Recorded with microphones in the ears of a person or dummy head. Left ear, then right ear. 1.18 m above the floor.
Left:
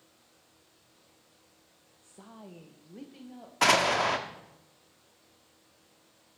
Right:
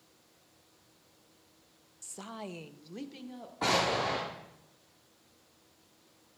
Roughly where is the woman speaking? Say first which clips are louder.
Right 8 dB; right.